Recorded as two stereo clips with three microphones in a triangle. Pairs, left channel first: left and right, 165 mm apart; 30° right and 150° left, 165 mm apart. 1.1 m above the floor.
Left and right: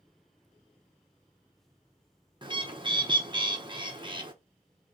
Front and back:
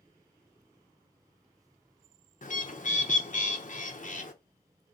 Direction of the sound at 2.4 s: 35° right.